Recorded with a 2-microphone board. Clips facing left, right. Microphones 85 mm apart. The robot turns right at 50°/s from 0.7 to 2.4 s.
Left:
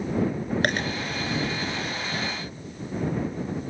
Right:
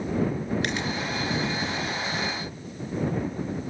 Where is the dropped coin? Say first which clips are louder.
Left 3 dB; 50° left (ahead or behind); by 0.9 s 40° left (ahead or behind).